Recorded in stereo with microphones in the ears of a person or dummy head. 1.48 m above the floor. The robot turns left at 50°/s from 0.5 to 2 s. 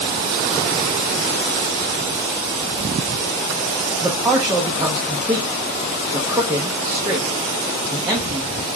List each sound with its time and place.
4.0 s a man speaking: 15° right (ahead or behind), 0.7 m